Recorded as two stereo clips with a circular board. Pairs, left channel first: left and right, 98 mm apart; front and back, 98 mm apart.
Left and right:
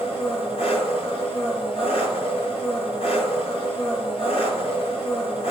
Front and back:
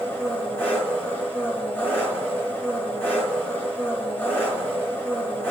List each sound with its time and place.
0.0 s an engine running: 75° left, 5 m